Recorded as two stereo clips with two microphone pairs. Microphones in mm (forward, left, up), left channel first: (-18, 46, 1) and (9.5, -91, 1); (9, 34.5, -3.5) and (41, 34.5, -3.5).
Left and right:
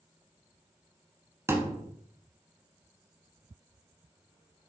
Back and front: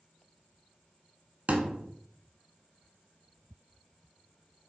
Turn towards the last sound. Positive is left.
turn(degrees=-15)